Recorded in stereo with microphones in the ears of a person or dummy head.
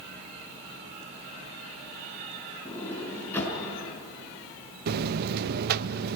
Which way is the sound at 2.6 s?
15° left (ahead or behind).